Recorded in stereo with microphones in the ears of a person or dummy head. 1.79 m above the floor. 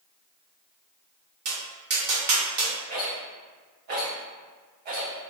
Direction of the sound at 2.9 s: 50° right (ahead or behind).